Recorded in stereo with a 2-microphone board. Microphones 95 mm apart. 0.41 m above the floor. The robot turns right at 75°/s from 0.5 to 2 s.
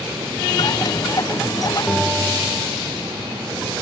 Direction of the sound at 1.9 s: 15° left (ahead or behind).